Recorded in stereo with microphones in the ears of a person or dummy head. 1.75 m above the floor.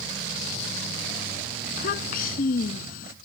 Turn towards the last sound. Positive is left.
turn(degrees=50)  # may be behind; listen again after turning